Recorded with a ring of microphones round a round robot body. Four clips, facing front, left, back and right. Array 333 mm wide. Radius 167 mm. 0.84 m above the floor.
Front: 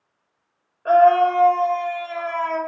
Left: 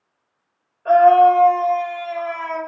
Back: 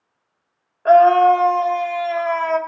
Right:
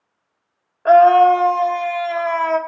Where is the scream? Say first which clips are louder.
Right 1 dB, back 3 dB; 120° right, 0.8 m.